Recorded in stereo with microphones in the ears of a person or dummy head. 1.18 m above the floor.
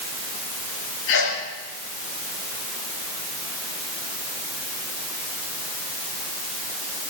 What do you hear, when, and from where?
1.1 s a sneeze: 80° left, 8 m